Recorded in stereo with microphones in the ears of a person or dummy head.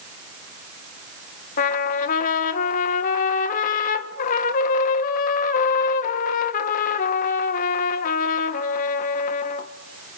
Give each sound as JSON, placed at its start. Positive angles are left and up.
{"t": 1.6, "sound": "a trumpet", "side_deg": 45, "distance_m": 1.4}